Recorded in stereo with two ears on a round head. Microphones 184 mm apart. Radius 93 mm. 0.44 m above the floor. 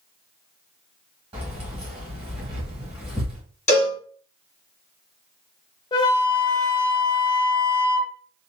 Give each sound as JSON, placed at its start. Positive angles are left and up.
{"t": 1.3, "sound": "keys jangling", "side_deg": -30, "distance_m": 1.4}
{"t": 3.7, "sound": "a cowbell", "side_deg": 35, "distance_m": 1.5}
{"t": 5.9, "sound": "a flute", "side_deg": 20, "distance_m": 0.7}